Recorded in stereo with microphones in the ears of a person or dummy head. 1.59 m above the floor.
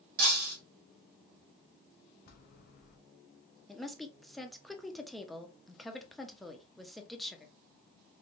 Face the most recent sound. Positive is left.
turn(degrees=10)  # may be behind; listen again after turning